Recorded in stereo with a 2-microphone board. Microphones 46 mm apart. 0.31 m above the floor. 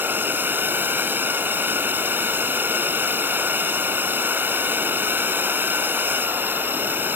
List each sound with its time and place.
0.0 s a drone: 50° right (ahead or behind)